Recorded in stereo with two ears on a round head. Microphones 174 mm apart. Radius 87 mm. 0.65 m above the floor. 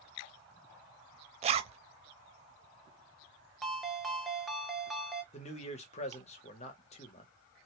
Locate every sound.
1.4 s a zipper: 35° right (ahead or behind), 0.5 m
3.6 s a ringtone: centre (ahead or behind), 0.6 m
5.3 s a man speaking: 35° left (ahead or behind), 0.9 m